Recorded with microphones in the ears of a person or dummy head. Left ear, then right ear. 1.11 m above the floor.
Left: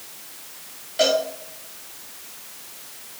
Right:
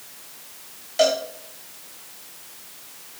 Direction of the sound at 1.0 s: 25° right (ahead or behind).